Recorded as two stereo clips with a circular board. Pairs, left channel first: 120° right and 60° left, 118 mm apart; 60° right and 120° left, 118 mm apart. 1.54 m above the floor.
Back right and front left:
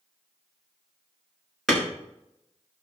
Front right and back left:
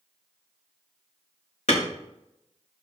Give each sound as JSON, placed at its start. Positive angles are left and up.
{"t": 1.7, "sound": "hammering", "azimuth_deg": -35, "distance_m": 4.5}